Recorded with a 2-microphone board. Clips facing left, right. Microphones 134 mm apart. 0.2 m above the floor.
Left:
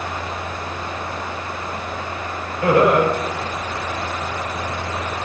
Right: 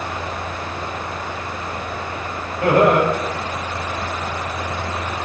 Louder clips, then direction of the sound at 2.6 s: Even; 55° right (ahead or behind).